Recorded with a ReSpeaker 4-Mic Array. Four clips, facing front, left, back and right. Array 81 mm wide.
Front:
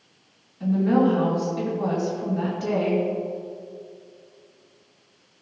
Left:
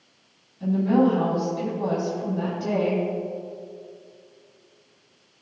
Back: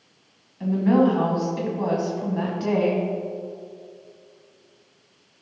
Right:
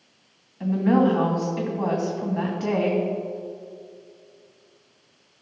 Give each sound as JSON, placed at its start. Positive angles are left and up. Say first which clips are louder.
{"t": 0.6, "sound": "a woman speaking", "louder": "even, back 1 dB", "azimuth_deg": -115, "distance_m": 2.5}